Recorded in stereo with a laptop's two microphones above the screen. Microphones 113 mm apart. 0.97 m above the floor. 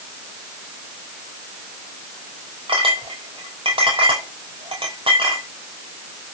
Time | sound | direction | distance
2.7 | a clink | 55° right (ahead or behind) | 3 m